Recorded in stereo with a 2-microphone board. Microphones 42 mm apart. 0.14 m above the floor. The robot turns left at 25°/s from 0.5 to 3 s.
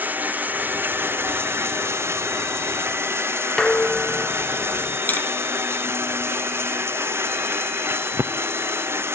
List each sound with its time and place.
0.0 s running water: 50° right, 1.4 m; by 9.2 s 110° right, 1.4 m
3.6 s dishes clattering: 15° left (ahead or behind), 1.1 m
5.1 s tapping: 45° left (ahead or behind), 1.8 m